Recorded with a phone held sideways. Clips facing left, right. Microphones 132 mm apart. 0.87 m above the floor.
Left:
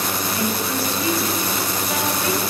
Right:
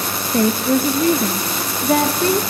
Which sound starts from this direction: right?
A woman speaking, at 0.3 s.